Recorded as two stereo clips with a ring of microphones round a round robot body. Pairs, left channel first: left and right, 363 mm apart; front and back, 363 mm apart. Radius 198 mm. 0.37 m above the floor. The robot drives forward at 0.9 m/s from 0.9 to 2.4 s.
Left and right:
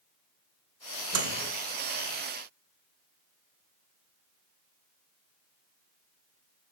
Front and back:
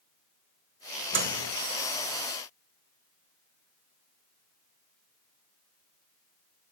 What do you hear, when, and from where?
1.1 s a microwave: 125° right, 0.8 m; by 1.5 s 145° right, 1.0 m